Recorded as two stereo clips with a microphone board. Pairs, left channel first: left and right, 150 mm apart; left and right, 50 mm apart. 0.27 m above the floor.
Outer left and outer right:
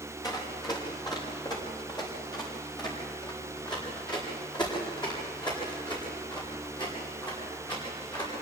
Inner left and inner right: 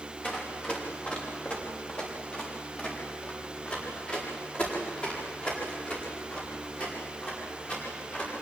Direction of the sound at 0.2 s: 25° left (ahead or behind).